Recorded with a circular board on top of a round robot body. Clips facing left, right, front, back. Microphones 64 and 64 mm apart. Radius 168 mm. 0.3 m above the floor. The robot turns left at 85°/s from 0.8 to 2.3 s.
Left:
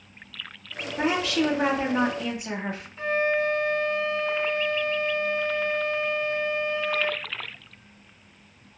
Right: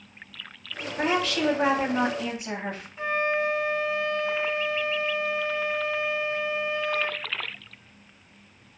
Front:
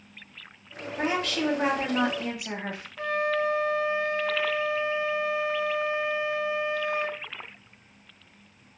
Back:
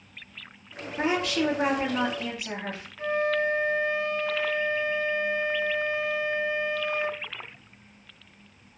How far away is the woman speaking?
About 1.5 m.